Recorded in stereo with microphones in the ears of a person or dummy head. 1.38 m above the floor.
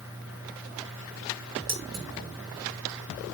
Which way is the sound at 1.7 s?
55° right (ahead or behind).